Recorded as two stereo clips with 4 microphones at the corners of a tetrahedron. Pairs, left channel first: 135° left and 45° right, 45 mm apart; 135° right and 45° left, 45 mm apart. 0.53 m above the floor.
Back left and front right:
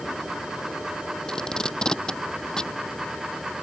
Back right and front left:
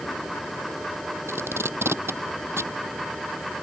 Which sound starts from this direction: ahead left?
Tape being pulled, at 1.3 s.